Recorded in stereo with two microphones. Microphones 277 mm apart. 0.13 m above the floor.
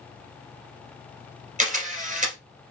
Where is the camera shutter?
30° right (ahead or behind), 1.6 m.